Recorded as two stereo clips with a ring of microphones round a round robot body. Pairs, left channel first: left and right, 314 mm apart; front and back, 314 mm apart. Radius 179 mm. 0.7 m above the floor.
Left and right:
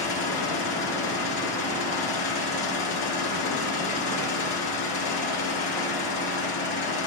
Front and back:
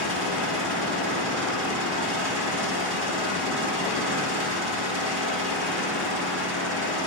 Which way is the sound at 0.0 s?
120° left.